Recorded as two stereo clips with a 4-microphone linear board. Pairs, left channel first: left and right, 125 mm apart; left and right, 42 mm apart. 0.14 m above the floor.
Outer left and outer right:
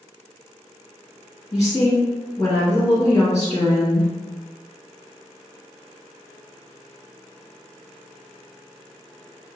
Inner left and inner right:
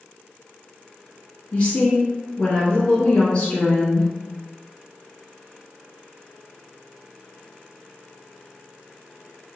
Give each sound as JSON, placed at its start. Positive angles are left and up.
{"t": 1.5, "sound": "a woman speaking", "side_deg": 30, "distance_m": 1.6}